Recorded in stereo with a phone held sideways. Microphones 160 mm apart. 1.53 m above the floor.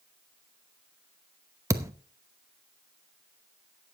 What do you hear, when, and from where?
1.7 s a thud: 20° right (ahead or behind), 0.8 m